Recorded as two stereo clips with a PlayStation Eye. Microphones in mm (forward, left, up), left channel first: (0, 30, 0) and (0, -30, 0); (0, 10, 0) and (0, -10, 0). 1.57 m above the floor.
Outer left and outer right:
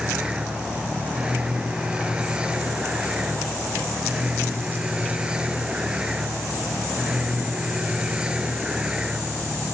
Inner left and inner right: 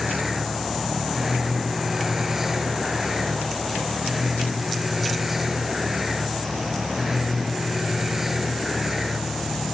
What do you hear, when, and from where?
0.0 s a vehicle: 15° right (ahead or behind)